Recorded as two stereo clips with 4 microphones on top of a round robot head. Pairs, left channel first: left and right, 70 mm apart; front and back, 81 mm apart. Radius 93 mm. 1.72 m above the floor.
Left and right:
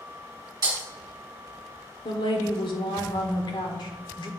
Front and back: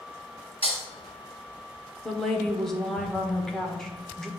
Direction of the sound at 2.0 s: 85° left.